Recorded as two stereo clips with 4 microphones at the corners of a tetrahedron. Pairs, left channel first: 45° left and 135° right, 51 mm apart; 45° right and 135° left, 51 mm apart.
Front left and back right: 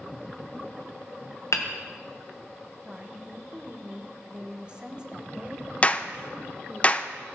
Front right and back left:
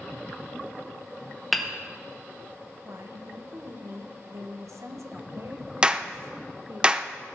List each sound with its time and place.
1.5 s hammering: 45° left, 1.6 m
2.9 s a woman speaking: 155° left, 1.5 m
5.8 s a clap: 80° left, 0.6 m